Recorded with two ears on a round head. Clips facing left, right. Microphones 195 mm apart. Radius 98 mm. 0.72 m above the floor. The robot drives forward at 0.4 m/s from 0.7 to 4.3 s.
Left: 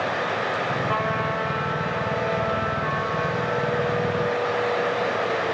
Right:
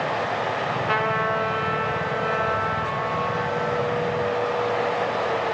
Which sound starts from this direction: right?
A trumpet, at 0.9 s.